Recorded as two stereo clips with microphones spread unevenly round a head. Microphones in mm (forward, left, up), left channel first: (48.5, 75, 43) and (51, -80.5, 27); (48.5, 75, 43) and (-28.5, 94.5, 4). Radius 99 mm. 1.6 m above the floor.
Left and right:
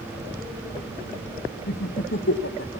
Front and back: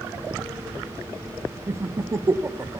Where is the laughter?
100° left, 0.7 m.